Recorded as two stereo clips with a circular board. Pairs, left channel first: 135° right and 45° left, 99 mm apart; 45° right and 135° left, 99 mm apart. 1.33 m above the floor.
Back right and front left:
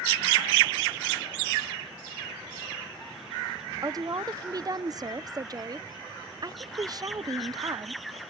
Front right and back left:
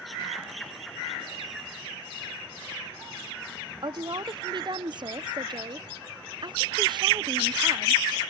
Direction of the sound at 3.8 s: 95° left.